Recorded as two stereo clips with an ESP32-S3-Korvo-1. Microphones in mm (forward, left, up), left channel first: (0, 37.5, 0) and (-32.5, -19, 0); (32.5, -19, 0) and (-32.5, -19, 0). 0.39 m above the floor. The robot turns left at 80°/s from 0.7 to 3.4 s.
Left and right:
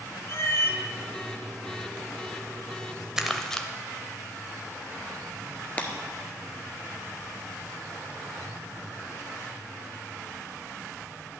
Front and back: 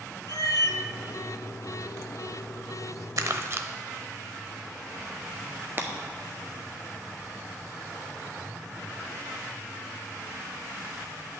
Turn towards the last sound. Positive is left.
turn(degrees=130)